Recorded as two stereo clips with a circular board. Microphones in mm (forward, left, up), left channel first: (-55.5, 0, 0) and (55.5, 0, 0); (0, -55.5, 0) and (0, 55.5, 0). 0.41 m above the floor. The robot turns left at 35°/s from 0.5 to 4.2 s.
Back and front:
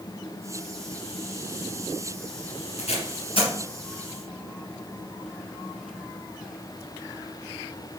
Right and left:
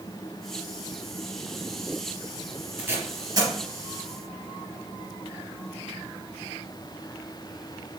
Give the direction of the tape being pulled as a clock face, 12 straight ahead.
6 o'clock.